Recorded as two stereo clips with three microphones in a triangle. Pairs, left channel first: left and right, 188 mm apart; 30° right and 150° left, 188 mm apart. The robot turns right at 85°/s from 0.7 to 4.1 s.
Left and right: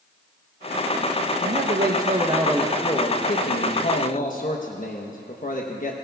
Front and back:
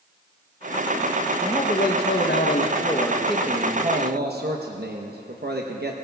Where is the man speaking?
100° right, 0.8 m; by 6.0 s 130° left, 0.8 m.